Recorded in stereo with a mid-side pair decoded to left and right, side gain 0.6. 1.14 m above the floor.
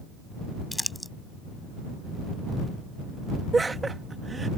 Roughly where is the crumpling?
Ahead.